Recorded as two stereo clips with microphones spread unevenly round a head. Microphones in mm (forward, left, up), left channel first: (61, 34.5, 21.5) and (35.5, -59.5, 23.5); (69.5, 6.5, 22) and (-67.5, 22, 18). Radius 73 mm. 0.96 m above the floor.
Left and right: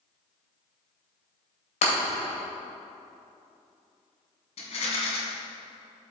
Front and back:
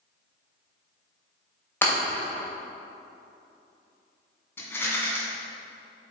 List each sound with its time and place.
1.8 s breaking glass: 70° left, 2.5 m
4.6 s a rattle: 70° left, 2 m